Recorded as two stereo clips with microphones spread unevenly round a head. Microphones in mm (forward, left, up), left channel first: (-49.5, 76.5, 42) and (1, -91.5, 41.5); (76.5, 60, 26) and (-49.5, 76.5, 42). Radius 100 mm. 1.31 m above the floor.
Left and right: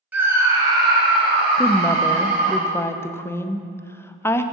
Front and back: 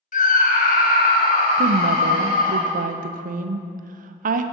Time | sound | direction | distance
0.1 | a scream | 10° left | 1.1 m
1.6 | a woman speaking | 175° right | 0.5 m